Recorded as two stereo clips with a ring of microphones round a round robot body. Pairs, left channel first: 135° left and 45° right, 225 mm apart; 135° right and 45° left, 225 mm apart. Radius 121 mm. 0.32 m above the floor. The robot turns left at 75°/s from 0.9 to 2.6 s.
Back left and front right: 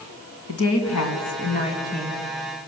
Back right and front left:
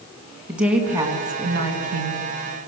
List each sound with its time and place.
0.5 s a woman speaking: 130° left, 3 m; by 2.3 s 25° left, 3 m